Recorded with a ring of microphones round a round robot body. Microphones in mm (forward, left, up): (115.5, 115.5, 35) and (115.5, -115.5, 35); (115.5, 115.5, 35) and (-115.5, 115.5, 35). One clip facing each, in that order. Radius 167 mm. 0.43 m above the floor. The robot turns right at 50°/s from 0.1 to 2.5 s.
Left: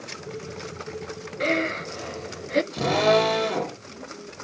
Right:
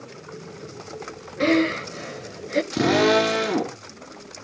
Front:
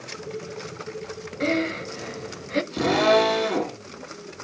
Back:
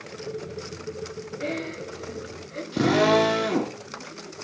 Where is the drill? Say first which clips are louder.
Right 5 dB, back 2 dB; 120° right, 4 m.